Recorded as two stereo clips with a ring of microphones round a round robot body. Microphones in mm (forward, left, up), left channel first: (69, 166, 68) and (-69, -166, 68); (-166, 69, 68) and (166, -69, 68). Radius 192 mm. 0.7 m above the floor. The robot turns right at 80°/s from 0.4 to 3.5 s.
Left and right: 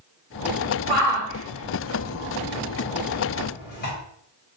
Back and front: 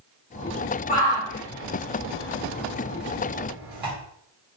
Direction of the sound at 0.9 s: 155° left.